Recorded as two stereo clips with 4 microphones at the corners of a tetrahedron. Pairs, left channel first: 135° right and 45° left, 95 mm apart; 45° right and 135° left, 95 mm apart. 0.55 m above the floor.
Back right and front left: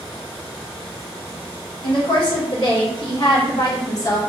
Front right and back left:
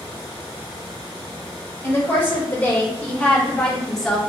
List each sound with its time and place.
1.8 s a woman speaking: 110° right, 1.9 m; by 4.3 s 135° right, 0.9 m